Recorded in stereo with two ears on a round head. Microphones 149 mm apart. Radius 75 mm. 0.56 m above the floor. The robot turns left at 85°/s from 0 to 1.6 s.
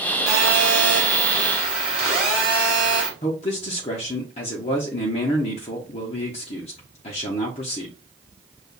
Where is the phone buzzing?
60° right, 3.5 m; by 3.1 s 175° right, 3.5 m.